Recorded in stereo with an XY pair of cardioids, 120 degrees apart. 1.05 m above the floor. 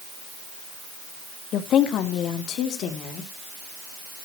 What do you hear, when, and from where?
1.5 s a woman speaking: 60° left, 1.2 m; by 3.3 s 70° left, 2.5 m